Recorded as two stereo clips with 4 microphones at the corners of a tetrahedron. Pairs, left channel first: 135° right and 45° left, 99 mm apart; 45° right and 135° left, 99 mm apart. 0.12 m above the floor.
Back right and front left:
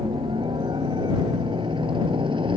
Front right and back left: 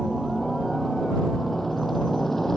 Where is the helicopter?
45° left; by 2.6 s 40° left.